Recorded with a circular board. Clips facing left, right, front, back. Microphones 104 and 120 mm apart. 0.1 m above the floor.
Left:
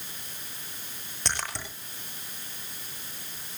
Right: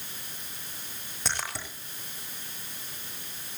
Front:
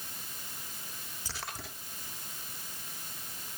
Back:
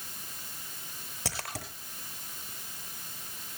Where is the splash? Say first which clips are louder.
Even, back 4 dB; 175° right, 8.5 m.